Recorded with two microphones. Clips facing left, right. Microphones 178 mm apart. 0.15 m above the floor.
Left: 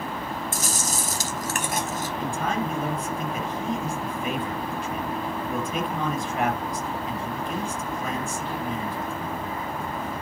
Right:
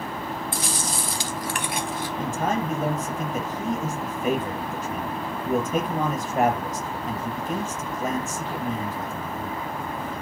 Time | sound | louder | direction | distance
0.5 | chewing | even | 45° left (ahead or behind) | 1.5 m
2.2 | a man speaking | right 2 dB | 45° right (ahead or behind) | 4 m